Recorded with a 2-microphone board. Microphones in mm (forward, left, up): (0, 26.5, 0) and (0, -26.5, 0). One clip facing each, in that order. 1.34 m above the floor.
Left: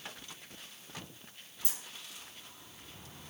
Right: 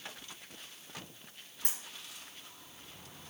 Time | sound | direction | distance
1.6 | a dropped coin | 60° right (ahead or behind) | 4.5 m